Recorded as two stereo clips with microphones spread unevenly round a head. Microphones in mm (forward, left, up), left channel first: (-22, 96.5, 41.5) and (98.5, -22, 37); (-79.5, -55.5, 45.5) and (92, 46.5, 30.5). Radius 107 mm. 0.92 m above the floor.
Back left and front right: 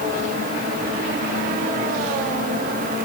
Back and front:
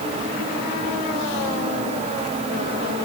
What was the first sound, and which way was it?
Only background noise.